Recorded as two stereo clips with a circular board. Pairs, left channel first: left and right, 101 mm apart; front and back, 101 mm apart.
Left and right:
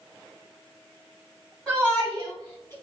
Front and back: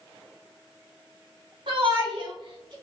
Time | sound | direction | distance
1.7 | a shout | 175° left | 2.5 m